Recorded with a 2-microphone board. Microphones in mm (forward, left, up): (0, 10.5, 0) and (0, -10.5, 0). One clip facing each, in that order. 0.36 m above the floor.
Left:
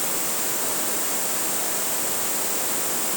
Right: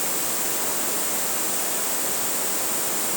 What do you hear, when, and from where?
Only background noise.